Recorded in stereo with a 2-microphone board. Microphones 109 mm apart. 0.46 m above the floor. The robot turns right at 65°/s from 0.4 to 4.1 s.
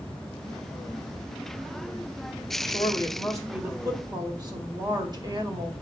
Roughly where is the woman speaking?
Behind left.